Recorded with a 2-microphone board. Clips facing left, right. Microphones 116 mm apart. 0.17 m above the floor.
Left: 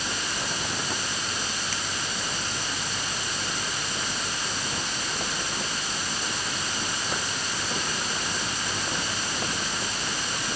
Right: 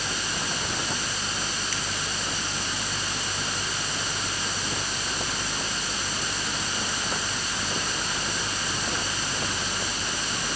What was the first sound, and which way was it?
Only background noise.